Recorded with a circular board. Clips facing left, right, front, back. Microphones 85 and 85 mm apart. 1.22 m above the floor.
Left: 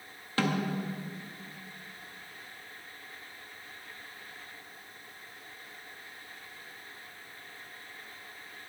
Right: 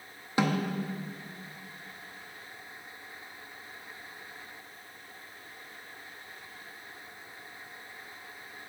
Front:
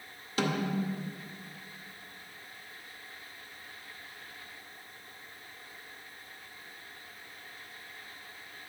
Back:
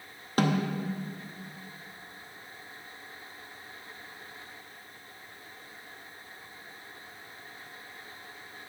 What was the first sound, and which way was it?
A snare drum, 160° right.